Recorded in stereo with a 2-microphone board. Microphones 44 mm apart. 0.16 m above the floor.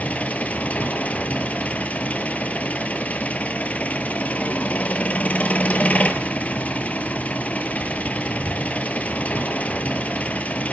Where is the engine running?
35° left (ahead or behind), 1.7 m.